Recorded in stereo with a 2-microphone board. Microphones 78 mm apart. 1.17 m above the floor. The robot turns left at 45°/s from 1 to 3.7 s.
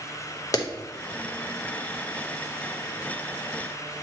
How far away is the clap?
About 0.8 m.